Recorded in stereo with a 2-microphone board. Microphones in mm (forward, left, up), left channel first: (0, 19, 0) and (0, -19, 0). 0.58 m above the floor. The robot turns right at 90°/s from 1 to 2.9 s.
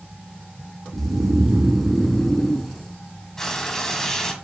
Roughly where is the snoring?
Right.